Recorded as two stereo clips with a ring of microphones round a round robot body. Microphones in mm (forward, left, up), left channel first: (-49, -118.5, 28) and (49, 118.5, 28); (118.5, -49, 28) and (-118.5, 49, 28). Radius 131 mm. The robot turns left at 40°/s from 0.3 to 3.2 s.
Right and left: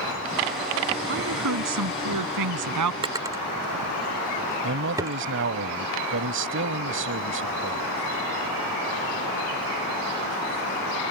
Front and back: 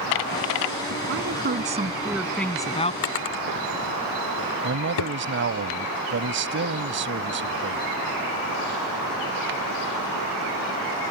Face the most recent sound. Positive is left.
turn(degrees=110)